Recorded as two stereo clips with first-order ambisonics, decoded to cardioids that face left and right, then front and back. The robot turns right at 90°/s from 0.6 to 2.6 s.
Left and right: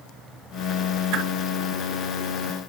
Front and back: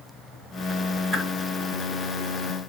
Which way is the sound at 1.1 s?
110° right.